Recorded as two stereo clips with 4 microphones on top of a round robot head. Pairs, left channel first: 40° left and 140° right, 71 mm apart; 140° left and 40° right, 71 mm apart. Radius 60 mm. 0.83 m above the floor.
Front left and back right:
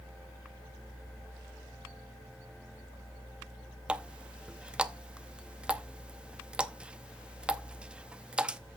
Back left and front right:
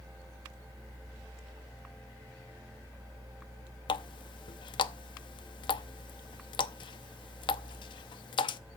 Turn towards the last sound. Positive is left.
turn(degrees=145)